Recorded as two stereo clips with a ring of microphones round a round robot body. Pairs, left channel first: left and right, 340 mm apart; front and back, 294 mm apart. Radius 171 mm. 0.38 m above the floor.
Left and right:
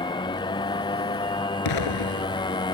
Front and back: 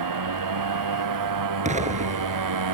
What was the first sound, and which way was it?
A motorcycle, 170° left.